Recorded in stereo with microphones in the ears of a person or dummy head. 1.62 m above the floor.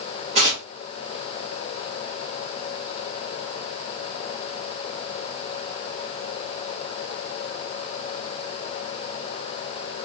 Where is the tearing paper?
35° right (ahead or behind), 1.1 m.